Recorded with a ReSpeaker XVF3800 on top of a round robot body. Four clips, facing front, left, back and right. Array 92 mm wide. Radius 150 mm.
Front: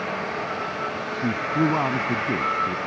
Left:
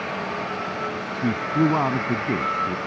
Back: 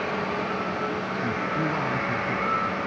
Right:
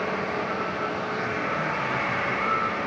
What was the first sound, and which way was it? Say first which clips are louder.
A man speaking: left 10 dB, front 6 dB; 60° left.